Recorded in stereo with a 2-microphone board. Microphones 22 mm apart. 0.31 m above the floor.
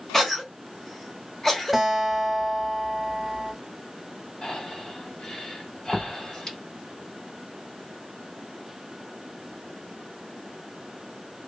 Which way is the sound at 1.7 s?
5° right (ahead or behind).